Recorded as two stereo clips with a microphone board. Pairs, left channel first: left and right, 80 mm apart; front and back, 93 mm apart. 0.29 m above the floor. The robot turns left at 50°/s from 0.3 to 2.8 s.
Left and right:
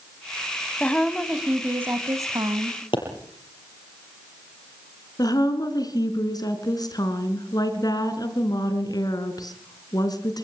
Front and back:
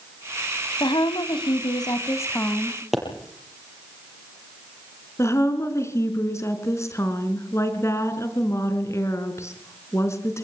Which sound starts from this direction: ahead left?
A woman speaking, at 5.2 s.